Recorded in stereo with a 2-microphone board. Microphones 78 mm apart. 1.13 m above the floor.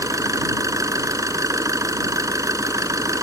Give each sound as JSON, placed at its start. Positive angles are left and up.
{"t": 0.0, "sound": "an engine running", "side_deg": -45}